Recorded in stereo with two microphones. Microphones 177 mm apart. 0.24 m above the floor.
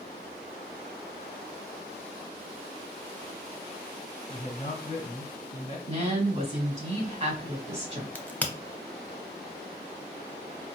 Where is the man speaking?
25° left (ahead or behind), 1.9 m.